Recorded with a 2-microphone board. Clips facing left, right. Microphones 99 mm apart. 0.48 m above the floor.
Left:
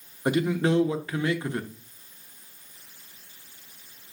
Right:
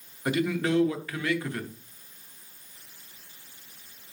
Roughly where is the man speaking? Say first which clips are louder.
Left 3 dB; left.